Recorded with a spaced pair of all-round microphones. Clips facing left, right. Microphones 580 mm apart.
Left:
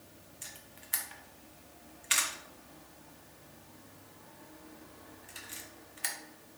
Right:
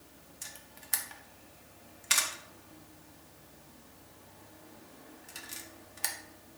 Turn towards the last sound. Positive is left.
turn(degrees=-65)  # may be behind; listen again after turning